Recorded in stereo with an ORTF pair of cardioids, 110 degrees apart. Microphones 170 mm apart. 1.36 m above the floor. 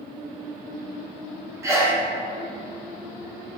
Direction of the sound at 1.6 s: 15° right.